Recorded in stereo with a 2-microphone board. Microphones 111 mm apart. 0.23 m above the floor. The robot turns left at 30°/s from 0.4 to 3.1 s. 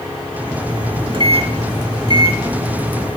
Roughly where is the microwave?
Right.